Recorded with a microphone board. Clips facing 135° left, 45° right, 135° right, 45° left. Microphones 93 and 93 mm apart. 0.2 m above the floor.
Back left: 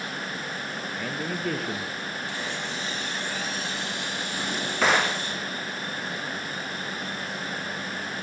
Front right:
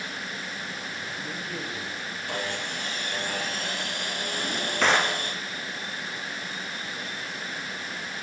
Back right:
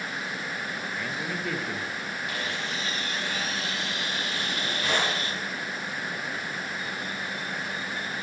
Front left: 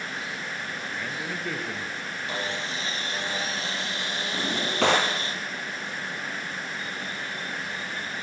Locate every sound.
1.0 s a man speaking: 135° left, 4.5 m
2.3 s sawing: 15° right, 4.5 m
4.3 s a drawer: 50° left, 6.5 m